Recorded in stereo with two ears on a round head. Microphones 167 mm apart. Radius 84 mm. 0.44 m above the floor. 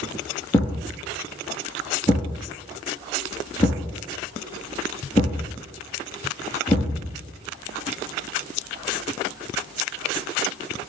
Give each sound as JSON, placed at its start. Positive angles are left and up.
{"t": 0.5, "sound": "a thud", "side_deg": 20, "distance_m": 2.5}